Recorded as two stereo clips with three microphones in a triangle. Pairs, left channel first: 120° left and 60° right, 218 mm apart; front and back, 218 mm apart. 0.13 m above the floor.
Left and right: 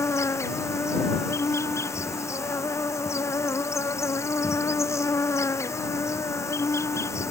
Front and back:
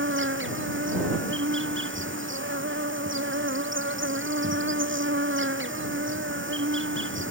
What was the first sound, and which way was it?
An insect, 165° right.